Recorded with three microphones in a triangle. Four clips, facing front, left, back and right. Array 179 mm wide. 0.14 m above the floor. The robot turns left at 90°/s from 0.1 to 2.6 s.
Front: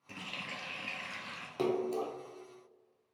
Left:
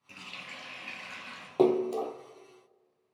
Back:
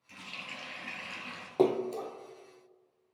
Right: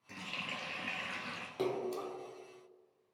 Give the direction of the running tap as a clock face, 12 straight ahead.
12 o'clock.